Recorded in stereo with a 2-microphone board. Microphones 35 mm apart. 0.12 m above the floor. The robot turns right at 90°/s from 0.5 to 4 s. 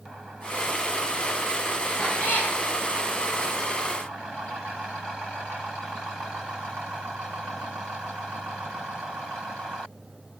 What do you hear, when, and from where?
2.0 s a cat meowing: 35° left, 10 m; by 2.5 s 85° left, 10 m